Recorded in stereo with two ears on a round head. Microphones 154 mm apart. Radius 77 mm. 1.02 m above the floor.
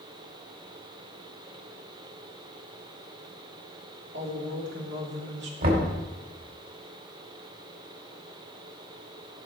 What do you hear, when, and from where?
4.1 s a woman speaking: 65° right (ahead or behind), 2.5 m
5.6 s knocking: 55° right (ahead or behind), 2.5 m